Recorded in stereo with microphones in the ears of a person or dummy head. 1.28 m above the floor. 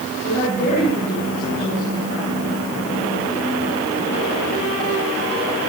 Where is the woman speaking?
55° left (ahead or behind), 10 m.